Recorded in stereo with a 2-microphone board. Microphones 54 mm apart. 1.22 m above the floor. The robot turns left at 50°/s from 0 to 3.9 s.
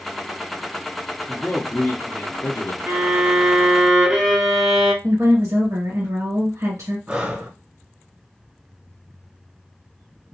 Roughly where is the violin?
Behind right.